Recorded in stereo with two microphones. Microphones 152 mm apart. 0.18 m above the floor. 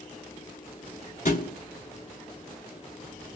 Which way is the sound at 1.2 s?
55° left (ahead or behind).